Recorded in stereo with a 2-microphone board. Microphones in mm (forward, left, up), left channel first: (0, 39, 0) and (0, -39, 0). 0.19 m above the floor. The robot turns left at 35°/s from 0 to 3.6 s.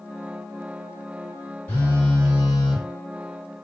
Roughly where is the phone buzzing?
Ahead left.